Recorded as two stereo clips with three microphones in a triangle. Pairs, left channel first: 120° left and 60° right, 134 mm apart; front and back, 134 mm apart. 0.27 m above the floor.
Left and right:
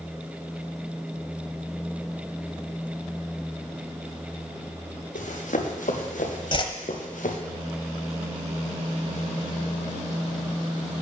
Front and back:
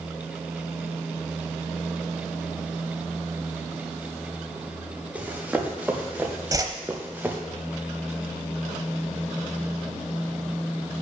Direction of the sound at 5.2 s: 100° left.